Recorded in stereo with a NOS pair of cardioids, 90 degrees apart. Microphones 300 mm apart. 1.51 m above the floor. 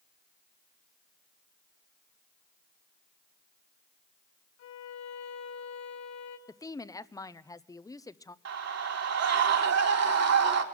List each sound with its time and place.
4.6 s a violin: 70° left, 3 m
6.5 s a woman speaking: 10° left, 0.8 m
8.4 s a scream: 55° right, 3.5 m